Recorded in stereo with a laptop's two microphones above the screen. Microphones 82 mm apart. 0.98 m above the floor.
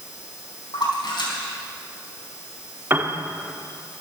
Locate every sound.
0.7 s a splash: 65° left (ahead or behind), 4.5 m
2.9 s a piano: 25° right (ahead or behind), 1.3 m